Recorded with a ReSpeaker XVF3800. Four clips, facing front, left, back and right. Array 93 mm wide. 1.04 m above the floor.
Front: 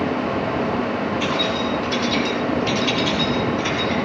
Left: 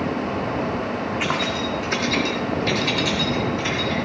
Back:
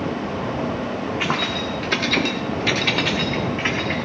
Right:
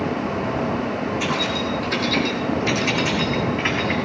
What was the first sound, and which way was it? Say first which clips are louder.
Keys jangling: even, front 2 dB; 145° left.